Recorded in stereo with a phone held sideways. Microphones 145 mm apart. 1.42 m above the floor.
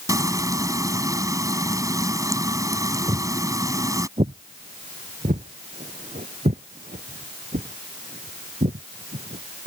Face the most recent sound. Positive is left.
turn(degrees=-70)  # may be behind; listen again after turning